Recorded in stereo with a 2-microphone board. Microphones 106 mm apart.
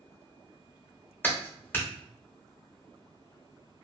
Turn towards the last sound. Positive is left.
turn(degrees=20)  # may be behind; listen again after turning